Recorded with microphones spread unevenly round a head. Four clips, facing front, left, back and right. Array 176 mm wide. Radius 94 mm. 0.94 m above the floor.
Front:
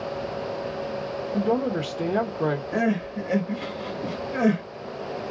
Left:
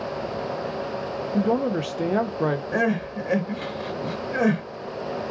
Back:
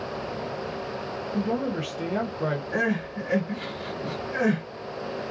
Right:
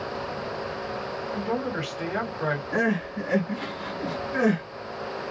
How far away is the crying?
About 1.3 m.